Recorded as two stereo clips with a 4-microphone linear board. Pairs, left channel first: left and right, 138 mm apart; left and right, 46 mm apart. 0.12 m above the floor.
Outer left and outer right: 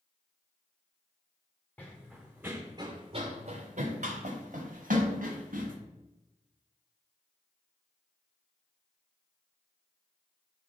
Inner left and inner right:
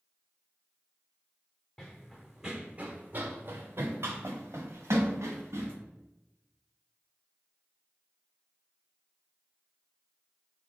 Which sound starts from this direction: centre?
Running footsteps, at 1.8 s.